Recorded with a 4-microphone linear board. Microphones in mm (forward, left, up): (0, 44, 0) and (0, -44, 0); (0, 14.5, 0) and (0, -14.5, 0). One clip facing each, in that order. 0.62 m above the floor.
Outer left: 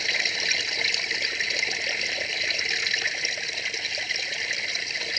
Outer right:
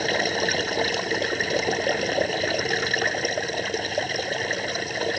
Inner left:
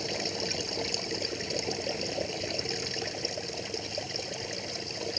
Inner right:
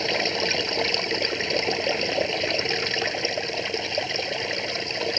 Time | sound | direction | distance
0.0 | running water | 45° right (ahead or behind) | ?